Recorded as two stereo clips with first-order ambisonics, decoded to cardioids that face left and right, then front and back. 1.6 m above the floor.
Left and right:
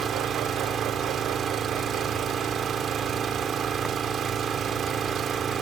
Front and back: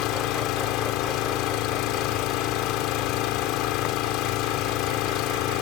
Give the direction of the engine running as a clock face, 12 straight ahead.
1 o'clock.